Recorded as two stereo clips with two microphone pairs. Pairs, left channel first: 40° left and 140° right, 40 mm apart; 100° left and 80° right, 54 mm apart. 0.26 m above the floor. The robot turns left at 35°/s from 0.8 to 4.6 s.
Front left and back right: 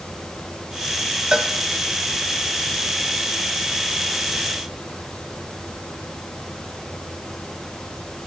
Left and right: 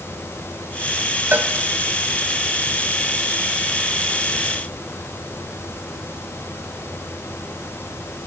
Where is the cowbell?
85° right, 0.8 m; by 1.5 s 90° right, 0.8 m.